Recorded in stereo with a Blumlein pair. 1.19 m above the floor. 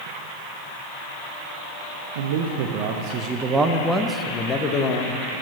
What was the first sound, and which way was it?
A man speaking, 60° right.